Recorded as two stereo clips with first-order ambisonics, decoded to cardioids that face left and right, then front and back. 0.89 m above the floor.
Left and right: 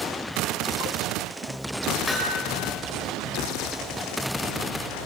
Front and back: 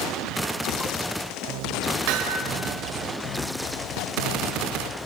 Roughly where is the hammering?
Behind.